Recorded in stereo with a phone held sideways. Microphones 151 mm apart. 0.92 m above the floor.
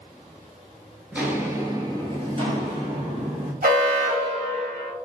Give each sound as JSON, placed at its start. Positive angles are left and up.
{"t": 1.1, "sound": "footsteps", "side_deg": -10, "distance_m": 0.9}
{"t": 3.6, "sound": "an alarm", "side_deg": -70, "distance_m": 1.3}